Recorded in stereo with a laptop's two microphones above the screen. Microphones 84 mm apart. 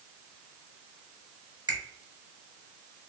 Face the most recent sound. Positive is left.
turn(degrees=-55)  # may be behind; listen again after turning